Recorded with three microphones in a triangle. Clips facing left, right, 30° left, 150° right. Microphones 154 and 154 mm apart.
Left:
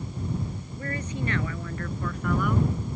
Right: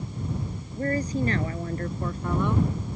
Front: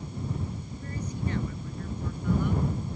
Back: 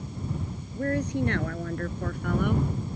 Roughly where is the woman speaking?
Behind right.